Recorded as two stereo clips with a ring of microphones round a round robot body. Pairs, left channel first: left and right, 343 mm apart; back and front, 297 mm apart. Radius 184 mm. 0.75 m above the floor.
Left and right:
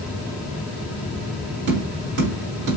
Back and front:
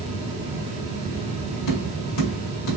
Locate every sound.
1.7 s tapping: 150° right, 2.5 m